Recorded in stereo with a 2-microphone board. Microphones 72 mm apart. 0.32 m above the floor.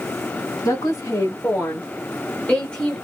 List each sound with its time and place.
0.7 s a woman speaking: 40° left (ahead or behind), 1.9 m; by 3.0 s 5° left (ahead or behind), 1.2 m